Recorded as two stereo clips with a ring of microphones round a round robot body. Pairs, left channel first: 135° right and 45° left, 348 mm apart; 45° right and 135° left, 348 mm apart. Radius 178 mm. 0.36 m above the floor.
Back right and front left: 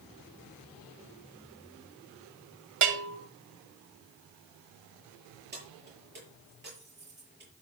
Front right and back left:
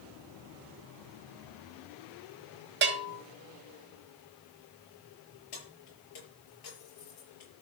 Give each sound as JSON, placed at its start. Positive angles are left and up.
{"t": 2.8, "sound": "a bell", "azimuth_deg": 80, "distance_m": 2.5}
{"t": 5.5, "sound": "keys jangling", "azimuth_deg": -15, "distance_m": 7.0}